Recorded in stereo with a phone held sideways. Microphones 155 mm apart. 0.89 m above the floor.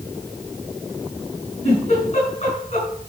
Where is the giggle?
50° left (ahead or behind), 7 m.